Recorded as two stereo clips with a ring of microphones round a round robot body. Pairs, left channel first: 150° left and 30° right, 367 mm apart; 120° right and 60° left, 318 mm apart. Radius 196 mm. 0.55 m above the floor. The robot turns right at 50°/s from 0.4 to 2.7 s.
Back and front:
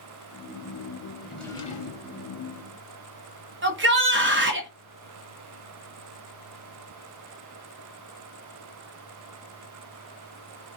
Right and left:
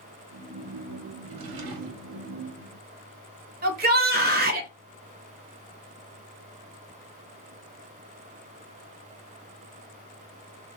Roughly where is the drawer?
Ahead left.